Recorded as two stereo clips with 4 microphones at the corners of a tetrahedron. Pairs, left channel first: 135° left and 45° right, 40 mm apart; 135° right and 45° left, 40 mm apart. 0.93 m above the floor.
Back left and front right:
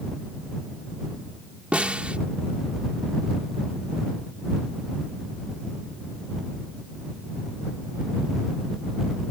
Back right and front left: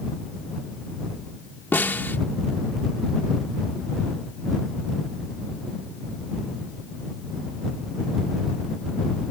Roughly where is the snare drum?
Right.